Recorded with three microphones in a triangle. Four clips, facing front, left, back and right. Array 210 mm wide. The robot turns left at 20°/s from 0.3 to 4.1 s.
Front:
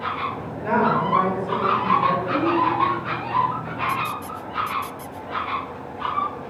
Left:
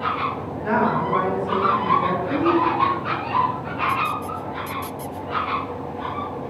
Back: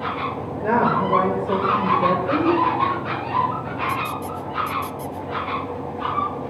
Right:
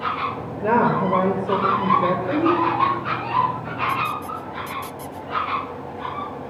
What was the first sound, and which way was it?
A woman speaking, 110° right.